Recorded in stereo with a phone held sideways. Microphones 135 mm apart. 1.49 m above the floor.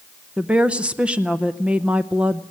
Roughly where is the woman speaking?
Centre.